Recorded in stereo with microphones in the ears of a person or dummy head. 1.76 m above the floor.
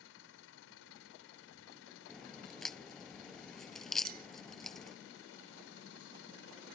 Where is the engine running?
75° left (ahead or behind).